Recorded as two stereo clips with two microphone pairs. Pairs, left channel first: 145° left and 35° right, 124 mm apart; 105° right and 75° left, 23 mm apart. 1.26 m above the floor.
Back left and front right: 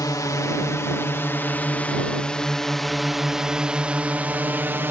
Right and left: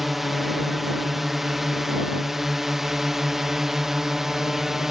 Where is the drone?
150° left; by 4.9 s 15° left.